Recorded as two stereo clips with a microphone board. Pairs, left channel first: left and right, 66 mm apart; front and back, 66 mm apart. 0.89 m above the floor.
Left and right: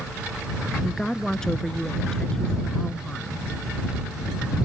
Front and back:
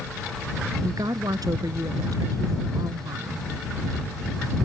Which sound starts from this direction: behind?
A woman speaking, at 0.8 s.